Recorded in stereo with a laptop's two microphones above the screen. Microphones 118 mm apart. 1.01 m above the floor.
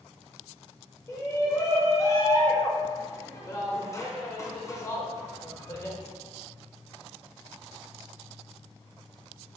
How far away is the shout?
About 0.7 m.